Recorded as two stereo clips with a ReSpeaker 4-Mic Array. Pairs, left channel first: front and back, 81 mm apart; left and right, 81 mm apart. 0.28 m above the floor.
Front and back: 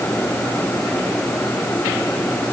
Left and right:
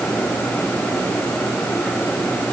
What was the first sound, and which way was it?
Only background noise.